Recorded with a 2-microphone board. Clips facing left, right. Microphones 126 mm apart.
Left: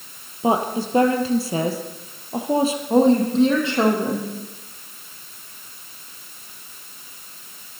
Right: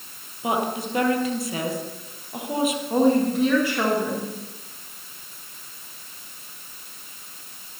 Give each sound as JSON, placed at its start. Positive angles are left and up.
{"t": 0.4, "sound": "a woman speaking", "side_deg": 30, "distance_m": 2.5}
{"t": 2.9, "sound": "a woman speaking", "side_deg": 25, "distance_m": 5.0}